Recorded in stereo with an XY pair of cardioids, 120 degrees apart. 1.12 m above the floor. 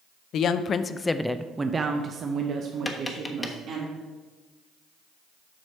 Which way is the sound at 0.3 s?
60° left.